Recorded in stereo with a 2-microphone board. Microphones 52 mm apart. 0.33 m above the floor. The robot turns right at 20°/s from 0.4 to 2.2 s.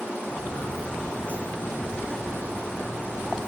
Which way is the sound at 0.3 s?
45° left (ahead or behind).